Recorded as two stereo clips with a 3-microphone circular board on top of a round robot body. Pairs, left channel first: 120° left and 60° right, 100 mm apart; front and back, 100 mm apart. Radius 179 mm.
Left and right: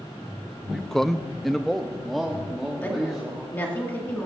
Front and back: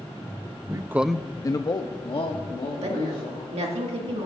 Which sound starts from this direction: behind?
A woman speaking, at 2.8 s.